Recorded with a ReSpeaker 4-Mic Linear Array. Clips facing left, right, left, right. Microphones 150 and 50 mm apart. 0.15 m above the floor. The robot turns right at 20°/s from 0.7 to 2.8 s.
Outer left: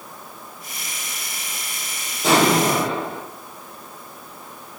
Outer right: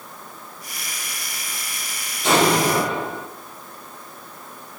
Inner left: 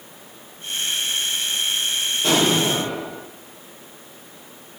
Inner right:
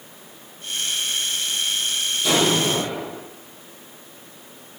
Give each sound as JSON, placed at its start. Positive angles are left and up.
{"t": 2.2, "sound": "an explosion", "side_deg": 35, "distance_m": 4.0}